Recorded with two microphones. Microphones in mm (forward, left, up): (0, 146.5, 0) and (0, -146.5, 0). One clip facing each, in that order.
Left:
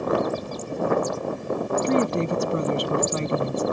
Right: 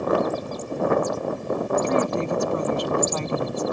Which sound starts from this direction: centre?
A woman speaking, at 1.8 s.